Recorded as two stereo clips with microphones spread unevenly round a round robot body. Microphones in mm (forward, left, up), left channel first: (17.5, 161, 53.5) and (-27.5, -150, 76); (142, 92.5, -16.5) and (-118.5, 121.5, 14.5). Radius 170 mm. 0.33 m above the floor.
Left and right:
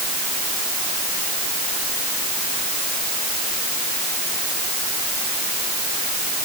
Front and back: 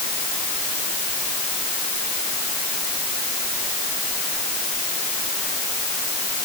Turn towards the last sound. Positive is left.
No sound to turn to.